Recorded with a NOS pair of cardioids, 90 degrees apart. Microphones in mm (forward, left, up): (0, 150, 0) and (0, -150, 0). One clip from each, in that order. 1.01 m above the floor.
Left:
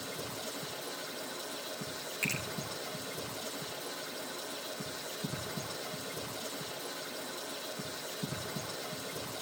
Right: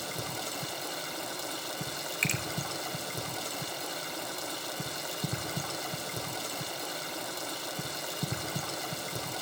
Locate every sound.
0.0 s running water: 65° right, 2.5 m
2.2 s a finger snap: 55° right, 4 m